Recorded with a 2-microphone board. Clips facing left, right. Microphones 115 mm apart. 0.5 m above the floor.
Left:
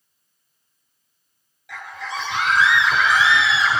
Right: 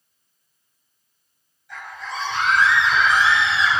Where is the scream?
80° left, 8.5 m.